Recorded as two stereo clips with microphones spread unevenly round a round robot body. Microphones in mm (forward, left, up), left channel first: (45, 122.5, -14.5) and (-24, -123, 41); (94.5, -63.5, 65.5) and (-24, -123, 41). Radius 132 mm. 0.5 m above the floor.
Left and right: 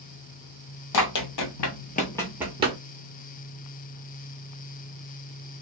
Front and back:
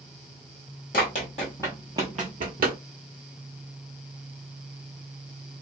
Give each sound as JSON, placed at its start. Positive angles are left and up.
{"t": 0.9, "sound": "running footsteps", "azimuth_deg": 55, "distance_m": 1.1}